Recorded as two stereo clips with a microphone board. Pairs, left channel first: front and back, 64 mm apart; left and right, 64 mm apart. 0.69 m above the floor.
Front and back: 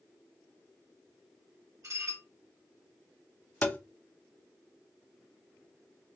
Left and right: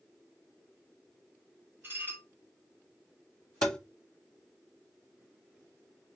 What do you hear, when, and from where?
1.8 s dishes clattering: 145° right, 1.8 m
3.6 s tapping: 25° left, 0.5 m